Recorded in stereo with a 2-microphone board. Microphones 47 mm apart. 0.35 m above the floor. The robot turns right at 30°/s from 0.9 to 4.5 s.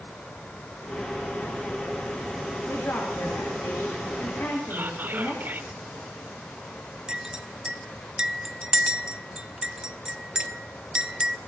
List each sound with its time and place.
2.7 s a woman speaking: 65° left, 5 m; by 5.7 s 120° left, 5 m
4.7 s whispering: 50° right (ahead or behind), 3.5 m
7.1 s a clink: 15° right (ahead or behind), 1.1 m